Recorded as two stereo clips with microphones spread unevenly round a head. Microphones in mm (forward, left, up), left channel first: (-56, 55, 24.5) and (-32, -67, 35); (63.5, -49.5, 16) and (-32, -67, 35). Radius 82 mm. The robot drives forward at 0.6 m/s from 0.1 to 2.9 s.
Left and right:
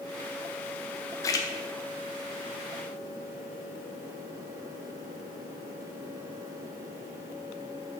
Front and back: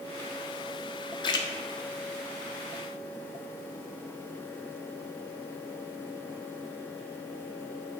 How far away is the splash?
About 0.6 m.